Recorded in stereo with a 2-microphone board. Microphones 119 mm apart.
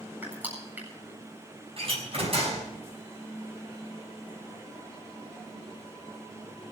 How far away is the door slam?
About 6 m.